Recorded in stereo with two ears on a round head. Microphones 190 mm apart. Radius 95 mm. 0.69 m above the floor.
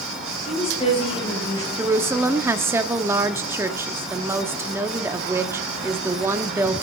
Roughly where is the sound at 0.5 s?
Left.